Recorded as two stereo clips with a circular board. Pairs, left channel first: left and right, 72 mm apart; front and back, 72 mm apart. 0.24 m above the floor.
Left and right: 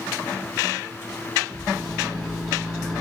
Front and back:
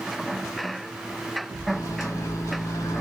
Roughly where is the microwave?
Ahead.